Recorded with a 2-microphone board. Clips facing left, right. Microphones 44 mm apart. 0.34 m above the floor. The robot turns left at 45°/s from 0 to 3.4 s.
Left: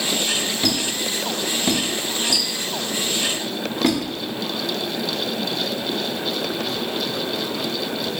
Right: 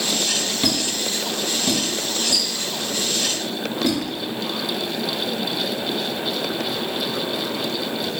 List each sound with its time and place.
0.6 s a squeak: 10° right (ahead or behind), 0.8 m; by 4.0 s 60° left (ahead or behind), 0.8 m